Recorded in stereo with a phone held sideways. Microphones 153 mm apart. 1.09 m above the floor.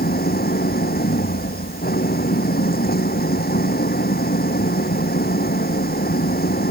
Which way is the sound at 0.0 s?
85° left.